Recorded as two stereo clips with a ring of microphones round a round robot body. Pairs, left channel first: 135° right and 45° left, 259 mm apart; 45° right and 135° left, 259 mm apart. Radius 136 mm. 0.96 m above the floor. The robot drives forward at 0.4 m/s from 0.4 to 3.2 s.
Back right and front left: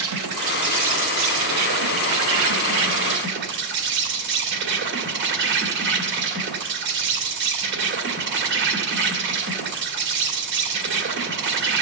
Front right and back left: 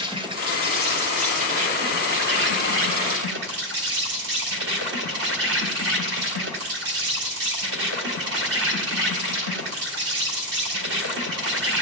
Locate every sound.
0.0 s an insect: 60° left, 2 m; by 11.8 s 95° left, 1.9 m